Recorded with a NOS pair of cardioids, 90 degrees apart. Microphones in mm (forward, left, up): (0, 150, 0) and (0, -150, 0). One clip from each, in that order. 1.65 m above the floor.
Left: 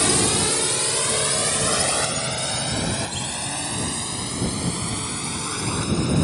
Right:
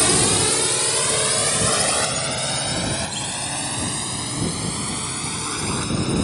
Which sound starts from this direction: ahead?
A drone, at 0.0 s.